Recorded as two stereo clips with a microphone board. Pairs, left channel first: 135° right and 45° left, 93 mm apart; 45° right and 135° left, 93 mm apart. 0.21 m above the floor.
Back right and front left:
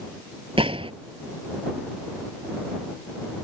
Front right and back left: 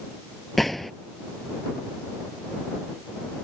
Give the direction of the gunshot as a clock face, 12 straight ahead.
11 o'clock.